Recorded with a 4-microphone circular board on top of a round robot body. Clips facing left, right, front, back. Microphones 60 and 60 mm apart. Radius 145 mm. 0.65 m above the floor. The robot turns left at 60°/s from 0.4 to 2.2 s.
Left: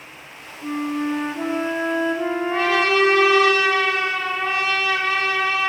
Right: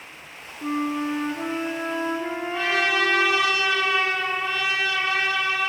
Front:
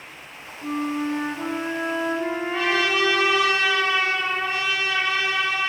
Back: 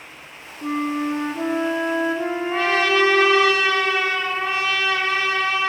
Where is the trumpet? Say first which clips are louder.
Left 4 dB, back 4 dB; 130° left, 4 m.